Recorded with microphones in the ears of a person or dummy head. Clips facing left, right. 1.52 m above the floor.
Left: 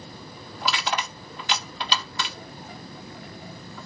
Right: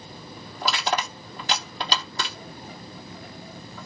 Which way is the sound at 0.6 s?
35° right (ahead or behind).